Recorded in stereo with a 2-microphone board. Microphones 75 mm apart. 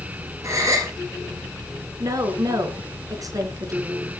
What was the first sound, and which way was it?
A gasp, 45° right (ahead or behind).